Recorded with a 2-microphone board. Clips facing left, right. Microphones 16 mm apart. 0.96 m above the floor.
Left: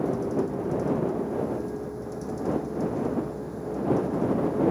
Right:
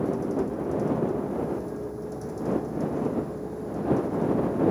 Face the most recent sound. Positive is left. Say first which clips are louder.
# even
turn(degrees=10)  # may be behind; listen again after turning